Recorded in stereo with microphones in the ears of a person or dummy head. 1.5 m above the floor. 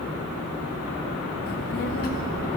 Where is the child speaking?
50° left (ahead or behind), 0.5 m; by 2.6 s 40° left (ahead or behind), 0.8 m.